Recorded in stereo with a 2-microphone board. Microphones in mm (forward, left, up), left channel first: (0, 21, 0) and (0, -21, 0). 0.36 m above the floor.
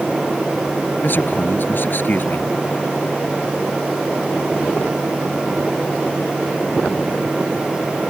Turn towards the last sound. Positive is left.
turn(degrees=50)  # may be behind; listen again after turning